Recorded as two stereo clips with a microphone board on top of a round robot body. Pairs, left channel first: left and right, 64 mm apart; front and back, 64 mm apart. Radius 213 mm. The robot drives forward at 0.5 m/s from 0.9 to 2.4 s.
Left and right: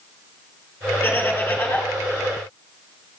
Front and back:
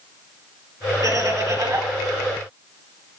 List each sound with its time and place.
1.0 s laughter: 155° left, 3.5 m